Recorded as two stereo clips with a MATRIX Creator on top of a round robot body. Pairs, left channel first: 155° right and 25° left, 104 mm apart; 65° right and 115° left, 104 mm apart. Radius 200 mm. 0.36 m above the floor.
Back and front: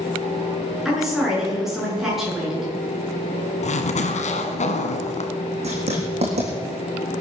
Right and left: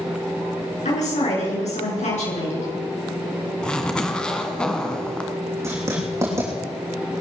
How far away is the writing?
About 5 m.